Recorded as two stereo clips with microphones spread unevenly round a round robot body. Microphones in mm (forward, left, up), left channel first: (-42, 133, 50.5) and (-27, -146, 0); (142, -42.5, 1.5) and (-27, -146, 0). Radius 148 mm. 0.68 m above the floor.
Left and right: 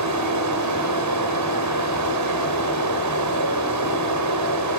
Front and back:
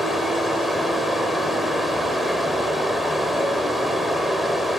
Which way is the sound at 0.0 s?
60° right.